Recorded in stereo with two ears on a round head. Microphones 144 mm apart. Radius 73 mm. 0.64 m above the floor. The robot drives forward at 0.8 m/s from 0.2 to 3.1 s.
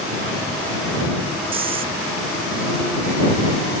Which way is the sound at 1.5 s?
35° right (ahead or behind).